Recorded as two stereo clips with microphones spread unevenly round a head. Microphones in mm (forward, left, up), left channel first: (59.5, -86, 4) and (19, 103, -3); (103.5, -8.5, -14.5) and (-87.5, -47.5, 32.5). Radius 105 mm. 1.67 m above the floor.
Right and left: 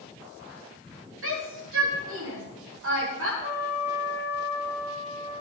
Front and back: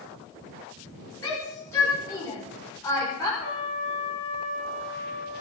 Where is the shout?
90° left, 7 m.